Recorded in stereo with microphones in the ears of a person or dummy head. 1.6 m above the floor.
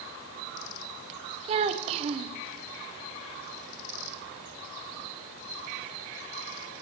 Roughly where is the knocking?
I don't hear knocking.